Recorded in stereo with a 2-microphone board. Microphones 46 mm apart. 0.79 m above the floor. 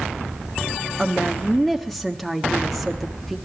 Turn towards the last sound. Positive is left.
turn(degrees=0)  # may be behind; listen again after turning